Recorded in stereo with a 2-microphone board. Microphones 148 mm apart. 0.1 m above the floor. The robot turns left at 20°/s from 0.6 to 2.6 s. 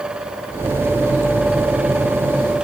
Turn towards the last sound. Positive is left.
No sound to turn to.